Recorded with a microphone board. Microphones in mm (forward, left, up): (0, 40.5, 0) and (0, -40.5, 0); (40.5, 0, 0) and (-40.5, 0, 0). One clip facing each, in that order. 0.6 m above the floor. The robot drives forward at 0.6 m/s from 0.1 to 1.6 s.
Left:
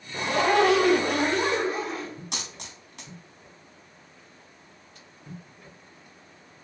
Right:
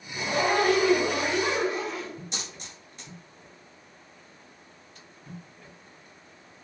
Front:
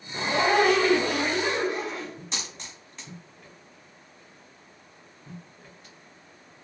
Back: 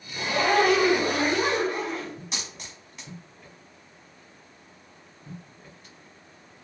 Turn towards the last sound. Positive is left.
turn(degrees=95)